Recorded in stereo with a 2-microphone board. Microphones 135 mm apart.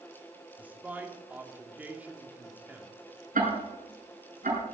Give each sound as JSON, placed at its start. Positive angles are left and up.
{"t": 0.6, "sound": "a man speaking", "side_deg": -10, "distance_m": 2.0}
{"t": 3.4, "sound": "ticking", "side_deg": -85, "distance_m": 6.0}